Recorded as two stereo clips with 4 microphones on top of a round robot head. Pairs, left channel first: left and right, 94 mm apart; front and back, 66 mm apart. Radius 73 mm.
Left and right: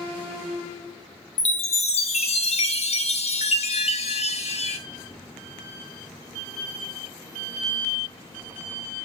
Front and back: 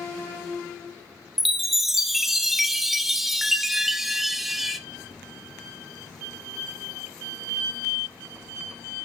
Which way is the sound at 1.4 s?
95° left.